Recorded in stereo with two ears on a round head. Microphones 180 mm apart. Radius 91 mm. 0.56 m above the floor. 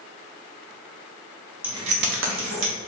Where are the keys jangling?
5° right (ahead or behind), 0.7 m; by 2.7 s 70° right (ahead or behind), 1.3 m.